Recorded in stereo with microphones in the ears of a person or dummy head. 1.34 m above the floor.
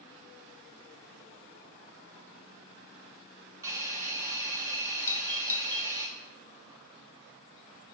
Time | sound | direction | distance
3.6 | a hiss | 15° right (ahead or behind) | 1.2 m
5.1 | a doorbell | 15° left (ahead or behind) | 0.6 m